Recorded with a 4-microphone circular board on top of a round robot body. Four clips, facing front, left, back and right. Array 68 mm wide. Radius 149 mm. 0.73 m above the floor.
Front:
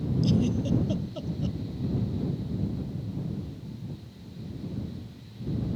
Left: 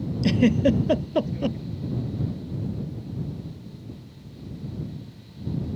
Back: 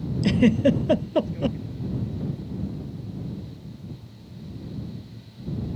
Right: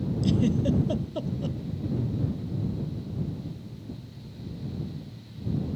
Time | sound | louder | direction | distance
0.2 | a giggle | left 6 dB, back 9 dB | 150° left | ?